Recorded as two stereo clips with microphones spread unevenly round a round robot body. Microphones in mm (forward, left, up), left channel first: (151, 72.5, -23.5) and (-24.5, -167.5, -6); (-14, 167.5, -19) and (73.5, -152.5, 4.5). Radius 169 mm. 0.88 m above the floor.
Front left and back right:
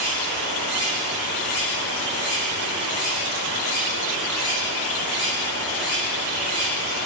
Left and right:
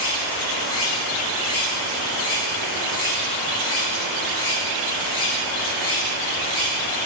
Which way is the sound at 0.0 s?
130° left.